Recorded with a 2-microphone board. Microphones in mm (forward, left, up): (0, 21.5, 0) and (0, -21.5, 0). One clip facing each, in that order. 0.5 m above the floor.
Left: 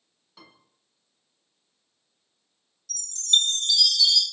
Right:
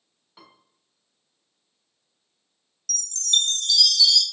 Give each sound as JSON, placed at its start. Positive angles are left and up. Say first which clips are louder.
{"t": 0.4, "sound": "a piano", "louder": "right 1 dB", "side_deg": -15, "distance_m": 0.7}
{"t": 2.9, "sound": "a chime", "louder": "left 1 dB", "side_deg": 20, "distance_m": 0.6}